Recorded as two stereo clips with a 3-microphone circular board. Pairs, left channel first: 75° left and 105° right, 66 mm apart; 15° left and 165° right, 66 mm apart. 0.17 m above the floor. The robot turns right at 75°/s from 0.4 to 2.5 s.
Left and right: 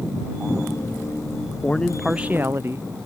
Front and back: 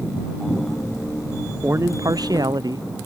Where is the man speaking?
140° left; by 2.9 s 155° right.